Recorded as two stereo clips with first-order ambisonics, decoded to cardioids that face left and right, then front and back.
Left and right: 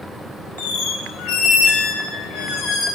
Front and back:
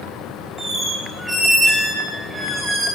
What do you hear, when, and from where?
0.6 s a squeak: 95° left, 6 m